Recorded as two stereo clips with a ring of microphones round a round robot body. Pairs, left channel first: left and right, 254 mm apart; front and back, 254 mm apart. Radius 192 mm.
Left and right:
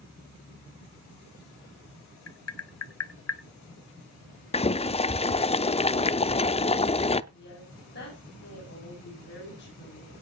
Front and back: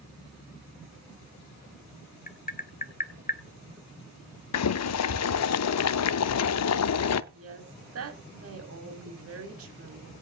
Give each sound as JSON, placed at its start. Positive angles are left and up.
{"t": 2.3, "sound": "tapping", "azimuth_deg": 60, "distance_m": 1.4}
{"t": 4.5, "sound": "boiling", "azimuth_deg": 20, "distance_m": 0.6}
{"t": 7.3, "sound": "a woman speaking", "azimuth_deg": 150, "distance_m": 5.0}